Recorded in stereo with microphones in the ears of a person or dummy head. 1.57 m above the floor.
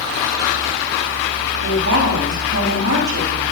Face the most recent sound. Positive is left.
turn(degrees=-75)  # may be behind; listen again after turning